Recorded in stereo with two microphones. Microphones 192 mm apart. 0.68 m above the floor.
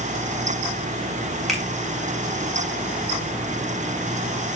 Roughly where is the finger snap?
Centre.